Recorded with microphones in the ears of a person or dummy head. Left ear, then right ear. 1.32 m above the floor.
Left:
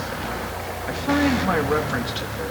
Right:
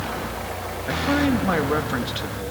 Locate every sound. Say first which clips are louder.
0.9 s a man speaking: even; 5° right (ahead or behind), 2.5 m